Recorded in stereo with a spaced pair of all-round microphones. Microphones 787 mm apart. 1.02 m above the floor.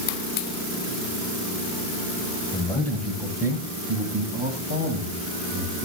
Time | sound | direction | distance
2.5 | a man speaking | 5° left (ahead or behind) | 7 m